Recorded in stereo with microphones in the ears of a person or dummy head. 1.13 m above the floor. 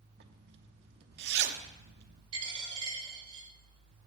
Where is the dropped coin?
30° right (ahead or behind), 5 m.